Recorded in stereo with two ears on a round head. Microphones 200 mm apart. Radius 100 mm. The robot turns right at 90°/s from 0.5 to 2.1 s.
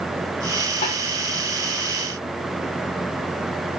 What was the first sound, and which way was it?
A snare drum, 35° left (ahead or behind).